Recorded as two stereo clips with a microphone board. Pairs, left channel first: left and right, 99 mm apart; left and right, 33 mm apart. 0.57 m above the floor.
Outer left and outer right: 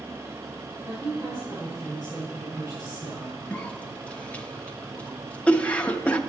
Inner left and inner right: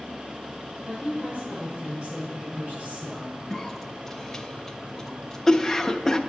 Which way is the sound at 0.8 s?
40° right (ahead or behind).